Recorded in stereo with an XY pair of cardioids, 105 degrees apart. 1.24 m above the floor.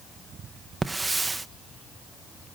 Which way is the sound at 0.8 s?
15° right.